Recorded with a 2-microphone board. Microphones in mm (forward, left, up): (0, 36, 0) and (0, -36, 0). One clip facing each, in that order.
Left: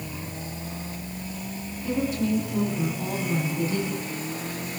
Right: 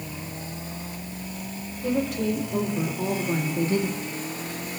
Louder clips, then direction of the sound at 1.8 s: Right 1 dB; 65° right (ahead or behind).